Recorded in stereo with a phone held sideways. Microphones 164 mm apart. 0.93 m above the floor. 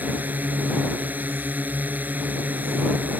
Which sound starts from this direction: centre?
A drone, at 0.0 s.